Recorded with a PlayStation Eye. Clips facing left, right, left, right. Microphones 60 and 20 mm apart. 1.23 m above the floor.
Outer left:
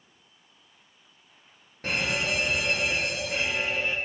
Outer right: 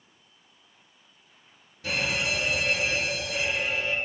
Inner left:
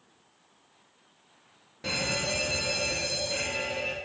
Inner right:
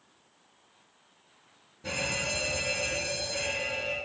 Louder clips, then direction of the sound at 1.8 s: Even, inner left 2 dB; 50° left (ahead or behind).